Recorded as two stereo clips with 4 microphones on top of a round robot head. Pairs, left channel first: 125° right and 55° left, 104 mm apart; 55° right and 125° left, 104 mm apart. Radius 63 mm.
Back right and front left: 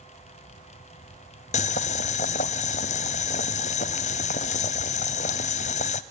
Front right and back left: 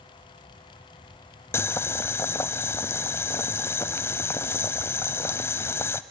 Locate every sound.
1.5 s boiling: 125° right, 0.8 m